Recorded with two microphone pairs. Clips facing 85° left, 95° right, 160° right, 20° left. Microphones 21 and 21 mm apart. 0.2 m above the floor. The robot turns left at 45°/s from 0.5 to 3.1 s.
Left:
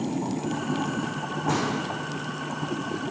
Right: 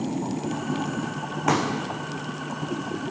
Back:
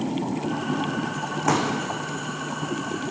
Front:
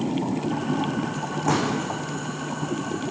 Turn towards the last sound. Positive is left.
turn(degrees=-175)